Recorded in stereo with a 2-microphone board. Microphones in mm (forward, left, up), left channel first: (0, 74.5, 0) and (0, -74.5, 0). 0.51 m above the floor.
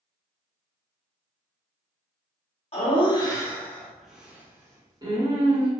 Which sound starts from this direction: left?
Laughter, at 2.7 s.